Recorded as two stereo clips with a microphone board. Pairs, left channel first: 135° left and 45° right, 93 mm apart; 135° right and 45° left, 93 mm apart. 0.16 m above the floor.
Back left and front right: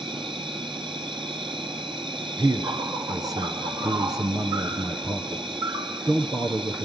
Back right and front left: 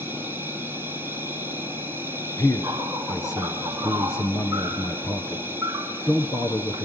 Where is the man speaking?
85° right, 2.5 m.